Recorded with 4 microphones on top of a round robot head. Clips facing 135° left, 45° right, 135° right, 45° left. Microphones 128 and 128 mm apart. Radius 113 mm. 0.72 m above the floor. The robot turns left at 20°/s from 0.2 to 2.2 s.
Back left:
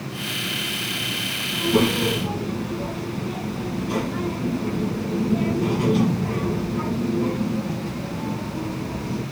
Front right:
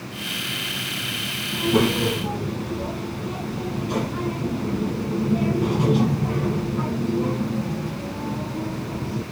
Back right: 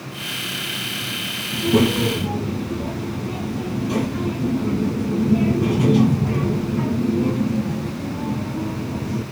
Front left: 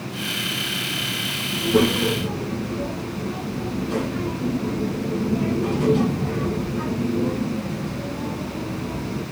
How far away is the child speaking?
About 4.5 m.